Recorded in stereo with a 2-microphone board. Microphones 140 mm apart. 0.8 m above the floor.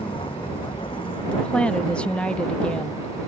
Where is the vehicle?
35° left (ahead or behind); by 3.3 s 40° left (ahead or behind).